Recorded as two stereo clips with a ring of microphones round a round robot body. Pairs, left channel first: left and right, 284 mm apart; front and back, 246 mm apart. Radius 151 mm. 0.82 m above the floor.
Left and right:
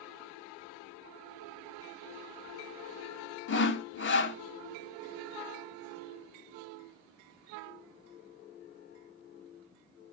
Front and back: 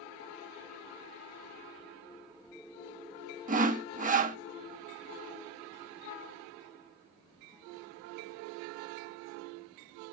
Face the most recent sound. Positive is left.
turn(degrees=130)